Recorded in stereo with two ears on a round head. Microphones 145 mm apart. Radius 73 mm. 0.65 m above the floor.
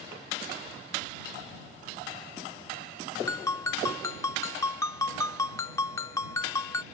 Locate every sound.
3.3 s a ringtone: 20° left (ahead or behind)